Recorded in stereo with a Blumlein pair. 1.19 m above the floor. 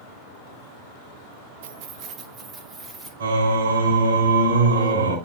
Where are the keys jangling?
55° right, 0.7 m; by 3.1 s 20° right, 2.5 m.